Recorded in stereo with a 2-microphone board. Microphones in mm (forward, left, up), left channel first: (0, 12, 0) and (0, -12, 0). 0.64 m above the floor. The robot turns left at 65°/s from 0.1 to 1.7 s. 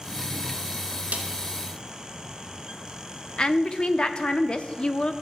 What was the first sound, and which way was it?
A snare drum, 90° right.